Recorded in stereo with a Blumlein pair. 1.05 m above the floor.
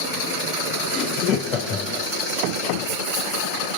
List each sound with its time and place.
0.9 s laughter: 30° left, 0.6 m